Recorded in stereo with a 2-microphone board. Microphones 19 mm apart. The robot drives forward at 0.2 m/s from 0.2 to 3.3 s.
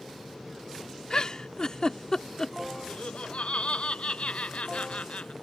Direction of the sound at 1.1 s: 45° left (ahead or behind).